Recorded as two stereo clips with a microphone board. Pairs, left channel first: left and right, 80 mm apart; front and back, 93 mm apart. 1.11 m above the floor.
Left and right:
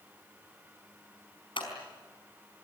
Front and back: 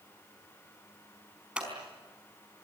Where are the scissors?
100° left, 4.5 m.